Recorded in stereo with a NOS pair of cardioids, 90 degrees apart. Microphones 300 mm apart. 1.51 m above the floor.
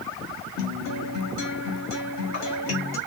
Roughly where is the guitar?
Ahead left.